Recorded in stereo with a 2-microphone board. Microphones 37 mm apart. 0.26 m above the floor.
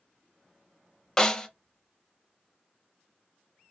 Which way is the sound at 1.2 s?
15° left (ahead or behind).